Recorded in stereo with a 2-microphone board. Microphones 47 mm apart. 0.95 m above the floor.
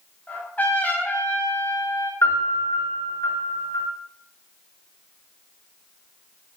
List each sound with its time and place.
0.3 s a trumpet: 40° left (ahead or behind), 6 m
2.2 s a piano: 85° left, 8 m